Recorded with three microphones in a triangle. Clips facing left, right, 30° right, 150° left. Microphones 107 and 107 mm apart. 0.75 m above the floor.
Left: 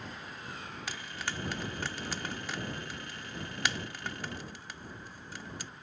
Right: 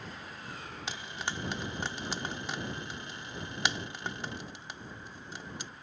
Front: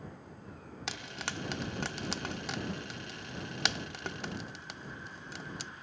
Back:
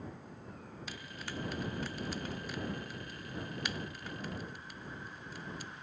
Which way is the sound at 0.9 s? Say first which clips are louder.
Right 2 dB, front 5 dB; 20° right.